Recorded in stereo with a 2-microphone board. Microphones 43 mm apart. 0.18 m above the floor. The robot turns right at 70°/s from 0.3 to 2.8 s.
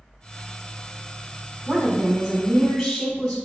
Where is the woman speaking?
15° right (ahead or behind), 1.1 m; by 3.4 s 5° left (ahead or behind), 1.1 m.